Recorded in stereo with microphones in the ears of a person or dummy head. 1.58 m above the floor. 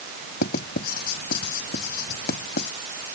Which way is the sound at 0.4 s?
55° left (ahead or behind).